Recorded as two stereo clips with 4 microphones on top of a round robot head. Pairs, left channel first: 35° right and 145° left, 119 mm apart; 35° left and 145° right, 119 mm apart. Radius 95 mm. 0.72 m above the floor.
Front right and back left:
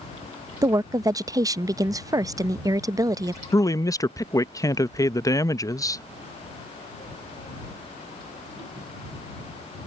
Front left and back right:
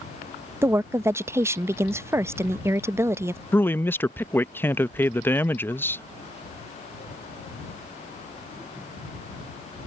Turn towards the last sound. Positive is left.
turn(degrees=-15)